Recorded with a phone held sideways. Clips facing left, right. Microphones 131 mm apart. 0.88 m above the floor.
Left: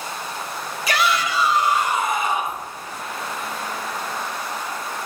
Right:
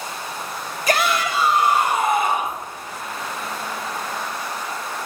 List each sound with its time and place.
0.9 s a shout: 45° right (ahead or behind), 1.9 m; by 2.6 s 60° right (ahead or behind), 3 m